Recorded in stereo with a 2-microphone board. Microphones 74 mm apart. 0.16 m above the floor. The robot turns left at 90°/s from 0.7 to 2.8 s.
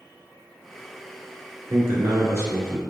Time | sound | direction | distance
1.7 | a man speaking | 60° right | 1.7 m